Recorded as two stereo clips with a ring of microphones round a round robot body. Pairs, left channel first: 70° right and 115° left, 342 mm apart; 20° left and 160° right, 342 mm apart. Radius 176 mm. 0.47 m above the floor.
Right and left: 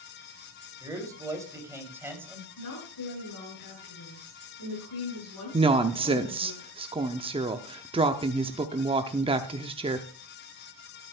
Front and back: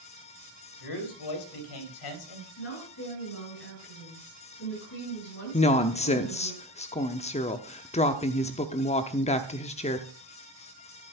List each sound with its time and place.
0.8 s a man speaking: 35° left, 2.5 m; by 2.5 s 30° left, 3.5 m
2.6 s a woman speaking: 25° right, 7.5 m
5.5 s a woman speaking: 60° left, 0.7 m